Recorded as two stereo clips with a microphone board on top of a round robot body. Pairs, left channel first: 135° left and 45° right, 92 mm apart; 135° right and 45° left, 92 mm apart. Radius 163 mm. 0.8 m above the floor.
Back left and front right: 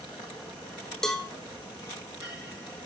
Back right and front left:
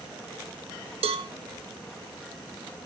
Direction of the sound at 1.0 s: 50° left.